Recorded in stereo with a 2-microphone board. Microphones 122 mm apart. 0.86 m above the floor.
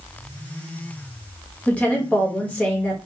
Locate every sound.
1.7 s a woman speaking: 10° left (ahead or behind), 0.9 m